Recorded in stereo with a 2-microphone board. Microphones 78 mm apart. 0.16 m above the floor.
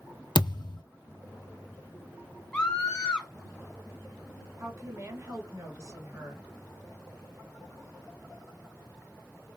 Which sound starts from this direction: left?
A thud, at 0.3 s.